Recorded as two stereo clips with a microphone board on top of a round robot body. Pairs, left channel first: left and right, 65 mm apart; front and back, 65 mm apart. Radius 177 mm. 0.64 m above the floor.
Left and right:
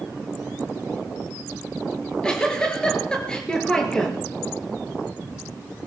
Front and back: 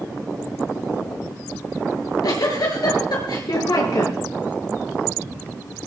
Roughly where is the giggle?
Ahead.